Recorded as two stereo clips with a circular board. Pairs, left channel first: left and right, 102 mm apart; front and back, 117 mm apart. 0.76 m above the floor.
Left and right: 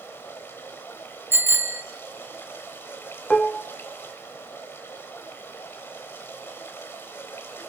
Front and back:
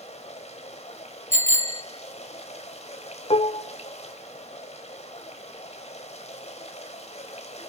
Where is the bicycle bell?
160° right, 2 m.